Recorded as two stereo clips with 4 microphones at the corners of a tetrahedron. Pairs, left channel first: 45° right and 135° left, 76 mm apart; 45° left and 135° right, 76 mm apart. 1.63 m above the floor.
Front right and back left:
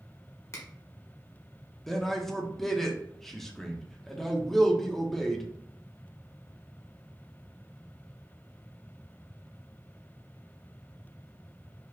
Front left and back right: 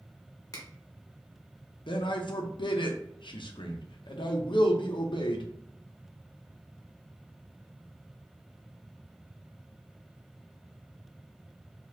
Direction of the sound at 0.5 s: 5° left.